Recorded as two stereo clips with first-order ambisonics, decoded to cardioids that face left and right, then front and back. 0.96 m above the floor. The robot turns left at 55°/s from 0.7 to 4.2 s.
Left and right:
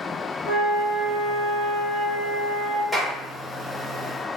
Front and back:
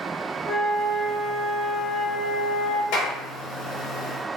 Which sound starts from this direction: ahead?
A clap, at 2.9 s.